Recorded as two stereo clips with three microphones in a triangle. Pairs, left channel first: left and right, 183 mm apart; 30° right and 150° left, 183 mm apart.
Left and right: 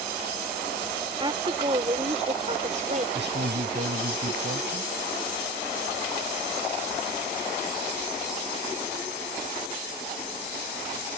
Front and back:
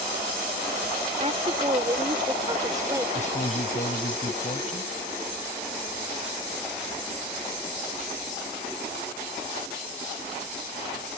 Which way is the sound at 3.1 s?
80° right.